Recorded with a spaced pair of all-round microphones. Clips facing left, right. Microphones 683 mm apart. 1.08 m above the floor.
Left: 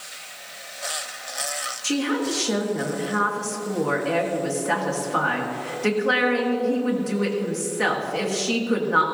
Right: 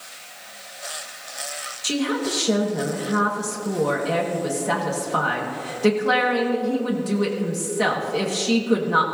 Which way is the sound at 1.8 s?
60° right (ahead or behind).